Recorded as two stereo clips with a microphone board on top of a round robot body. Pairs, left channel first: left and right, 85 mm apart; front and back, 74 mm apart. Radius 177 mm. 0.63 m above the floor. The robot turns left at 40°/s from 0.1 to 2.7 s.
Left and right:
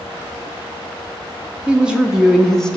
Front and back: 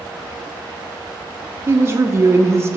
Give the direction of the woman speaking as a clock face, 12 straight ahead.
5 o'clock.